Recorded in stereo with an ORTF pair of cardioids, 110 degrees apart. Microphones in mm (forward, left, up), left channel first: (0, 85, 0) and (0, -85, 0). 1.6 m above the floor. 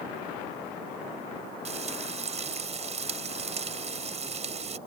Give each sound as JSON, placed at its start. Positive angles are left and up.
{"t": 1.6, "sound": "frying", "azimuth_deg": -35}